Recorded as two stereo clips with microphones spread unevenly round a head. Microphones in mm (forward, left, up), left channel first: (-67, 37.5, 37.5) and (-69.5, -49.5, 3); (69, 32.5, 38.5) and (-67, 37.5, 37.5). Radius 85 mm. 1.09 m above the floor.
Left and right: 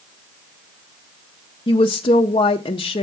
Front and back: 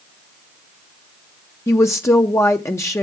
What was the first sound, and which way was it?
A woman speaking, 60° left.